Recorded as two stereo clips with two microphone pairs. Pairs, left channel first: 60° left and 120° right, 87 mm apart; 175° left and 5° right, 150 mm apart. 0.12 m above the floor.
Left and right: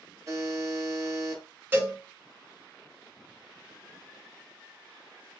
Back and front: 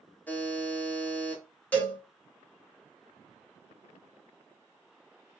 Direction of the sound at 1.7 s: 125° right.